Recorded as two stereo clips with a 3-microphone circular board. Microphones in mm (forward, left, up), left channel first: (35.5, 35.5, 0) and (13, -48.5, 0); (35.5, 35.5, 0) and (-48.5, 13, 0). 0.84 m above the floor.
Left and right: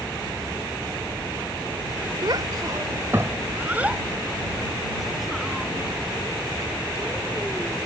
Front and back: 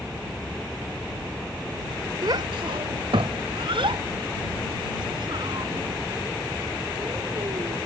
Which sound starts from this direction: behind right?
A child speaking, at 2.2 s.